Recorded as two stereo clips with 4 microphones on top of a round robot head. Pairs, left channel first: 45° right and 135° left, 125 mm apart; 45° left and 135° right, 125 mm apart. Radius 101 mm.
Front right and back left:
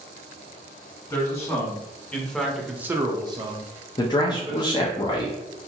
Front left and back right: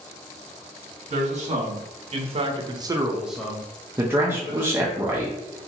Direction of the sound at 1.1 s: 110° right.